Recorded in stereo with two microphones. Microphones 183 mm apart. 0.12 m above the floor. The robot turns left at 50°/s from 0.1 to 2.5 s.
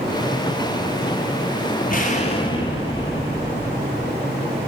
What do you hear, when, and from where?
1.9 s an explosion: 60° left, 1.5 m; by 4.1 s 30° left, 1.5 m